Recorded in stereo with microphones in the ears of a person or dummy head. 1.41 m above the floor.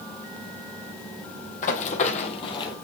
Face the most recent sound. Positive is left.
turn(degrees=25)  # may be behind; listen again after turning